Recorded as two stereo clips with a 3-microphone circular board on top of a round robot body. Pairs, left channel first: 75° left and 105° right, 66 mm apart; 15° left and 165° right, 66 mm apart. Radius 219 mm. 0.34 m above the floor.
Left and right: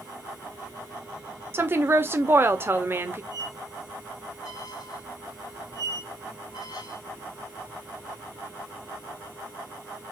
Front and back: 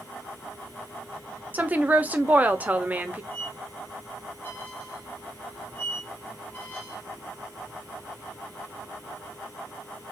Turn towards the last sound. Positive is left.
turn(degrees=80)